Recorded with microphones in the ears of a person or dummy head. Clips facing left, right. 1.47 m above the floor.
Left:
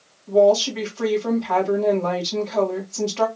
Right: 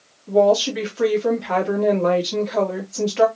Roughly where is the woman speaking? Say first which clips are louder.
Even; centre.